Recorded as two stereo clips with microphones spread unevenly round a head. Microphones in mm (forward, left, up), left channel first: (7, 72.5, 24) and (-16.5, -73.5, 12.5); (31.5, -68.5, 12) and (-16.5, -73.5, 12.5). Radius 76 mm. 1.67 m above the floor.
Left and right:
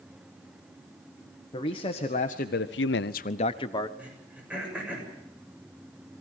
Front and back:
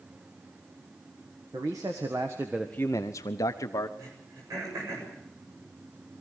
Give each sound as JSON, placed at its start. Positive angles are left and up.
{"t": 1.5, "sound": "a man speaking", "azimuth_deg": 140, "distance_m": 1.8}
{"t": 4.0, "sound": "throat clearing", "azimuth_deg": 180, "distance_m": 7.5}